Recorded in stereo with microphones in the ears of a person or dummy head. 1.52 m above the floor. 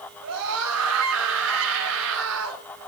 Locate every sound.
0.2 s a scream: 80° right, 7.5 m